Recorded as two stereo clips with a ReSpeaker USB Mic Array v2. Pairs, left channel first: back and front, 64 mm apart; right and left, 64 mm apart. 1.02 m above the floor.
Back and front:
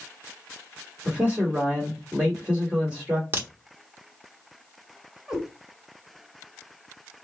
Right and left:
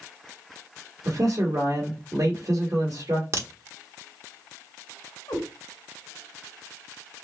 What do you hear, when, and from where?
1.1 s a man speaking: 70° left, 1.6 m
3.3 s a crack: 50° left, 1.0 m
5.3 s a cat meowing: 90° right, 1.6 m